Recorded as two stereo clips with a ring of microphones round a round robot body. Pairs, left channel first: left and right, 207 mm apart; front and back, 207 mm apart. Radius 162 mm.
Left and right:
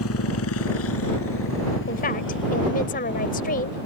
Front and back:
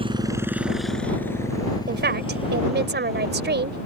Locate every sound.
0.0 s a motorcycle: 115° left; by 3.9 s 55° left
1.9 s a woman speaking: 145° left